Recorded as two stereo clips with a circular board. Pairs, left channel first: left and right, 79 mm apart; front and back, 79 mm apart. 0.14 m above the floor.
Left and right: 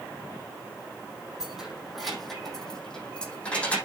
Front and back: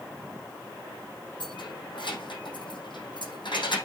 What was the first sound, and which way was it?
Keys jangling, 5° right.